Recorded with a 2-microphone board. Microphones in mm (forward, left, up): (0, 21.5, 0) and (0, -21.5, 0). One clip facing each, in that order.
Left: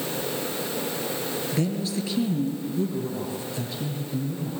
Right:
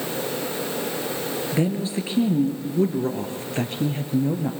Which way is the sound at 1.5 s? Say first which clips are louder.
Right 4 dB; 25° right (ahead or behind).